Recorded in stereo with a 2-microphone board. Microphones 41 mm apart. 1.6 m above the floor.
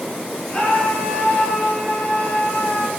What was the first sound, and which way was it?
A scream, 25° left (ahead or behind).